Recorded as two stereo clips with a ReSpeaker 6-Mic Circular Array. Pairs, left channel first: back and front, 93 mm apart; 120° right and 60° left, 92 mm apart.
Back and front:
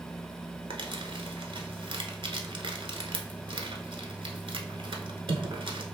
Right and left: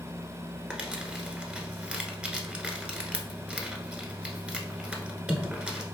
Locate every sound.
0.7 s crumpling: 20° right, 0.9 m